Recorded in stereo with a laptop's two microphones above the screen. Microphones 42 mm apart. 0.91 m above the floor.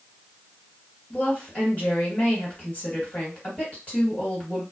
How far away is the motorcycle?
I don't hear a motorcycle.